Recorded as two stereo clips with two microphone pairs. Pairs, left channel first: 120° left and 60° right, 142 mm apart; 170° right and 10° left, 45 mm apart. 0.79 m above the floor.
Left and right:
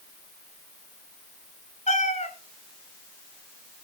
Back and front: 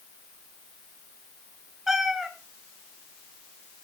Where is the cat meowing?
90° left, 1.8 m.